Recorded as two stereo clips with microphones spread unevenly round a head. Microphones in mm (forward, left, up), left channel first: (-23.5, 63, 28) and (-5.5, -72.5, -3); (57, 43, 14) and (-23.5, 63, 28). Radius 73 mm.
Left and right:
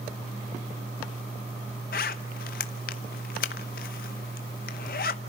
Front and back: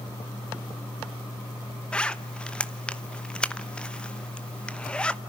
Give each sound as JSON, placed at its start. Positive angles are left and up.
{"t": 1.9, "sound": "a zipper", "azimuth_deg": 65, "distance_m": 0.9}